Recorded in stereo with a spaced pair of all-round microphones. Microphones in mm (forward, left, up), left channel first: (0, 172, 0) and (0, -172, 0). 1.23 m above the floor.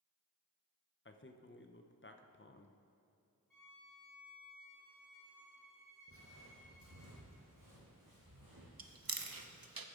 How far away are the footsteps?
About 2 m.